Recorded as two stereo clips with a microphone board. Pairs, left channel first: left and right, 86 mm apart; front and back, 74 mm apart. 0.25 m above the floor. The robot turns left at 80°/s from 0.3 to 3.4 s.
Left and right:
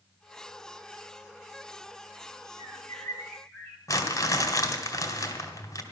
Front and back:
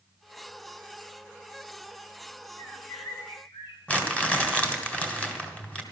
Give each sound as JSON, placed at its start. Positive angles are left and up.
{"t": 2.6, "sound": "a bird", "azimuth_deg": 70, "distance_m": 2.5}
{"t": 3.9, "sound": "crumpling", "azimuth_deg": 65, "distance_m": 2.0}